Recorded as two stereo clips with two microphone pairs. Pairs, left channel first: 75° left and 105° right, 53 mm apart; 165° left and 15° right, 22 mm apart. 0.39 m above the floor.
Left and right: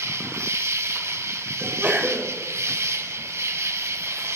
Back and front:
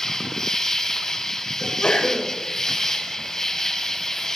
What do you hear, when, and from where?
0.0 s an insect: 125° right, 1.1 m
1.6 s a sneeze: 160° right, 5 m